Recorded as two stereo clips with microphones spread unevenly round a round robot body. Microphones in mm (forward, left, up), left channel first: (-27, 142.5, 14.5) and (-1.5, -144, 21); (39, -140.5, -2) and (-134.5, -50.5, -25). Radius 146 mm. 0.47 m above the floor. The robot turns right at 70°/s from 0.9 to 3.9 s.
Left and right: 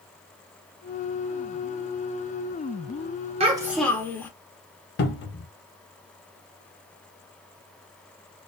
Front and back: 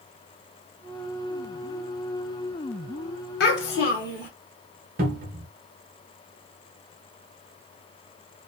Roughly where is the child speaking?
Ahead.